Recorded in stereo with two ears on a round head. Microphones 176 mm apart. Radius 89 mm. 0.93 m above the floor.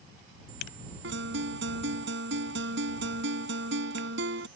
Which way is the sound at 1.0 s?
70° right (ahead or behind).